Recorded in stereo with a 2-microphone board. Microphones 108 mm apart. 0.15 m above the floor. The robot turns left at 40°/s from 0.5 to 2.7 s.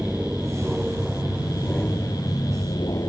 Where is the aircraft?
10° right (ahead or behind); by 3.1 s 30° left (ahead or behind).